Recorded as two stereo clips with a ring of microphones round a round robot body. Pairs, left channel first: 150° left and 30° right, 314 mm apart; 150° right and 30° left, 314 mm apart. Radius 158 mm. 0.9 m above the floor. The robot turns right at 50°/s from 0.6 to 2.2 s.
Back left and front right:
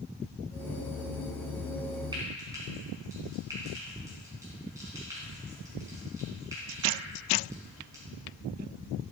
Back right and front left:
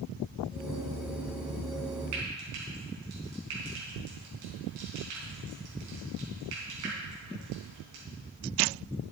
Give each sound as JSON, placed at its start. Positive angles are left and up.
{"t": 2.1, "sound": "frying", "azimuth_deg": 45, "distance_m": 3.5}